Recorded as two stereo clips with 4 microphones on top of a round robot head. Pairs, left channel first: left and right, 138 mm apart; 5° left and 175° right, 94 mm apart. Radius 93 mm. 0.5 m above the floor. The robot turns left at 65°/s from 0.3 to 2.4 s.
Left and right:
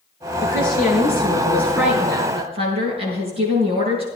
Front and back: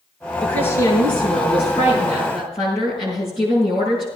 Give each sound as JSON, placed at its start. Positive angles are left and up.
{"t": 0.4, "sound": "a woman speaking", "azimuth_deg": 85, "distance_m": 7.0}